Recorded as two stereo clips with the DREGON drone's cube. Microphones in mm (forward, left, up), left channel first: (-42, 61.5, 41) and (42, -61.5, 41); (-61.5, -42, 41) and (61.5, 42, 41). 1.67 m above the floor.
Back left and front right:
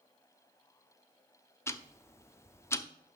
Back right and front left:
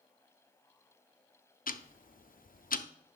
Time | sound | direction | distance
1.7 | ticking | 165° right | 0.5 m